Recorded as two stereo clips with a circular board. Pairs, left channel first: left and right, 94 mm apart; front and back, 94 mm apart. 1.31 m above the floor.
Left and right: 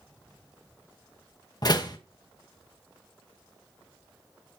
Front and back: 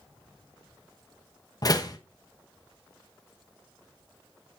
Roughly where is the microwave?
I don't hear a microwave.